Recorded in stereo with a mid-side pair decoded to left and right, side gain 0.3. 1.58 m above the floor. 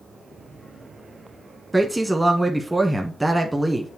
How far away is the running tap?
I don't hear a running tap.